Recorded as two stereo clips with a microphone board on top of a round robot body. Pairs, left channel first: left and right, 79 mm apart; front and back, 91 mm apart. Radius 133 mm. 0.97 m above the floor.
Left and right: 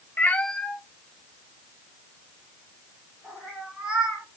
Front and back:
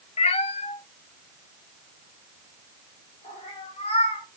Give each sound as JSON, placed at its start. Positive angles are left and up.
{"t": 0.2, "sound": "a cat meowing", "azimuth_deg": 20, "distance_m": 0.6}